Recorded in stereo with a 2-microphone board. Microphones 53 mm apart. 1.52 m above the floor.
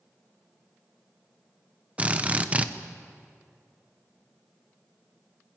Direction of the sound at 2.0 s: 25° right (ahead or behind).